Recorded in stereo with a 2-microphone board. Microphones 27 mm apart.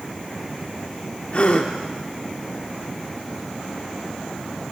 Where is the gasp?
45° left (ahead or behind), 0.6 m.